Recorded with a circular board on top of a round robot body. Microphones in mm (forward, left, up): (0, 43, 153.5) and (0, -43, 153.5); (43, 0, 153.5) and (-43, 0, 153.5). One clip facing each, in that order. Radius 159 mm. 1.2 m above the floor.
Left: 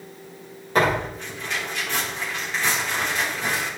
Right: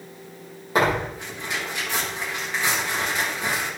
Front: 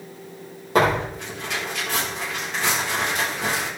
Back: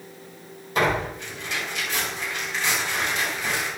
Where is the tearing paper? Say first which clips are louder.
Left 1 dB, front 4 dB; 15° right, 4.5 m.